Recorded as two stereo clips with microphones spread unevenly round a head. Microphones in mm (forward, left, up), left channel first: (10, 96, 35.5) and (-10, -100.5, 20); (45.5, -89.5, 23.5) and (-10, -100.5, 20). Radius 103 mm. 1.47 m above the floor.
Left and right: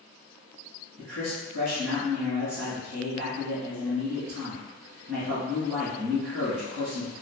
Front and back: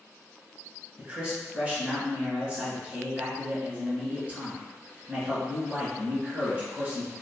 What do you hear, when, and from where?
1.0 s a man speaking: 115° right, 1.8 m